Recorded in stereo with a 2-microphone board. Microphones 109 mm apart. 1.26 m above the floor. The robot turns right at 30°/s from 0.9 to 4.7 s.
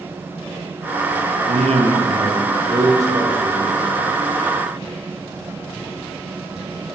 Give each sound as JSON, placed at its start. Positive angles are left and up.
{"t": 1.5, "sound": "a man speaking", "azimuth_deg": -80, "distance_m": 1.1}